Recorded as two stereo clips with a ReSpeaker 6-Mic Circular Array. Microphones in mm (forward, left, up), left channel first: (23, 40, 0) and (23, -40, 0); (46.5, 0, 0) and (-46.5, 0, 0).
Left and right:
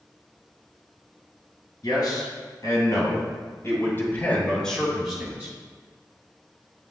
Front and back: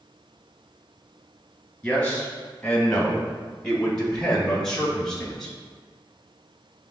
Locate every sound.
1.8 s a man speaking: 85° left, 2.0 m; by 5.6 s 85° right, 1.0 m